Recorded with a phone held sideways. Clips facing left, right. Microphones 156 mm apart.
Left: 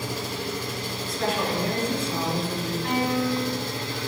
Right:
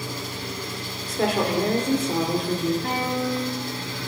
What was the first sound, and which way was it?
An engine running, 80° left.